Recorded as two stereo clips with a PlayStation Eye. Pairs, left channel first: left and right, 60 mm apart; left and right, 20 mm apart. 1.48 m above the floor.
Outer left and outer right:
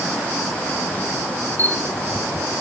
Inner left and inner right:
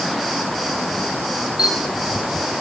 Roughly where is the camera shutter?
Right.